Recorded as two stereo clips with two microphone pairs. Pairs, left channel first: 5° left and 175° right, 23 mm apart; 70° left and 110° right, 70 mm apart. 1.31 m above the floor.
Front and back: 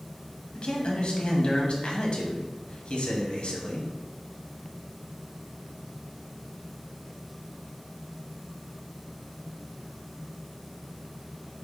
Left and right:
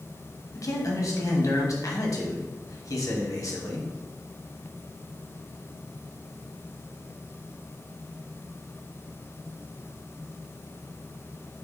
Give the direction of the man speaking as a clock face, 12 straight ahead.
11 o'clock.